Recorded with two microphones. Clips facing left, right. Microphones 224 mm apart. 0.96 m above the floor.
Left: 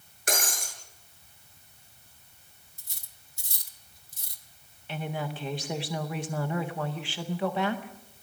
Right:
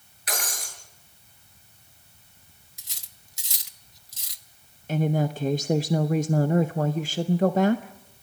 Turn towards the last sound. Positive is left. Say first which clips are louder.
# right 10 dB
turn(degrees=-40)  # may be behind; listen again after turning